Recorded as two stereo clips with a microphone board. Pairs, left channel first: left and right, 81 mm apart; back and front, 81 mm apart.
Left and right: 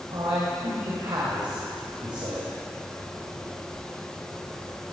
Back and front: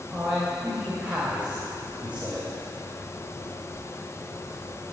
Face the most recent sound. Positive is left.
turn(degrees=-70)